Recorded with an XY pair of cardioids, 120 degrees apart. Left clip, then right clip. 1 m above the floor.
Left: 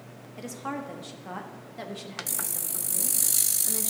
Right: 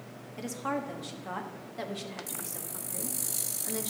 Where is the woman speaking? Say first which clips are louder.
Right 1 dB; 5° right, 1.4 m.